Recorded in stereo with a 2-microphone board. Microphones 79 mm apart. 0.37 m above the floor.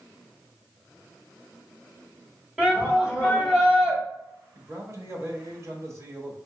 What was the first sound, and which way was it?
A shout, 5° right (ahead or behind).